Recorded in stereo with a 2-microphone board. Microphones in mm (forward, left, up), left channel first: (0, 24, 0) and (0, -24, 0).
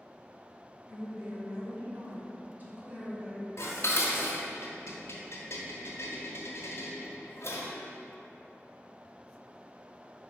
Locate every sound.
0.9 s a woman speaking: 20° right (ahead or behind), 2.0 m; by 3.5 s 25° right (ahead or behind), 2.5 m
3.6 s dishes clattering: 65° left (ahead or behind), 1.2 m